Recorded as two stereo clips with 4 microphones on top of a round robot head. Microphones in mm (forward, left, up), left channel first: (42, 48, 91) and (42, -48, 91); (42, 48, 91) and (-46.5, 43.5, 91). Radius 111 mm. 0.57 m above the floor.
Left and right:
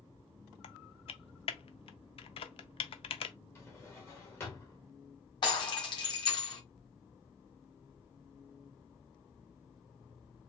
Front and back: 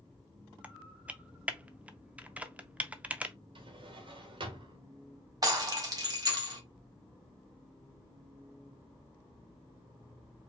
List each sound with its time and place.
0.6 s typing on a keyboard: 105° left, 0.6 m
3.5 s a drawer: 155° left, 1.3 m
5.4 s breaking glass: 135° left, 1.8 m